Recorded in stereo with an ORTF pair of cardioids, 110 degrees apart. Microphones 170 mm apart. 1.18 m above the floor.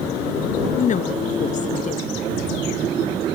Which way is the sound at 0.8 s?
45° left.